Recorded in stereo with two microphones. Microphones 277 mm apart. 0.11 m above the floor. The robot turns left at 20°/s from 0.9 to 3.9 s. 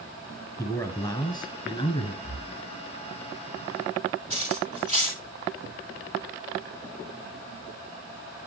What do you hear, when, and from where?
0.6 s a man speaking: 10° left (ahead or behind), 1.5 m; by 2.1 s 20° left (ahead or behind), 1.5 m
2.2 s breathing: 55° right (ahead or behind), 4.5 m; by 2.6 s 65° right (ahead or behind), 4.5 m
4.3 s cutlery clinking: 25° right (ahead or behind), 8.5 m